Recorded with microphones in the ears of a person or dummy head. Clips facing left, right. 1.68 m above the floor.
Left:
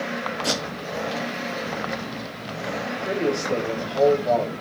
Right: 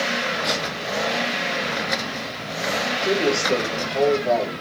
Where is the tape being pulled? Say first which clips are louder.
Right 1 dB; 40° left (ahead or behind), 1.3 m.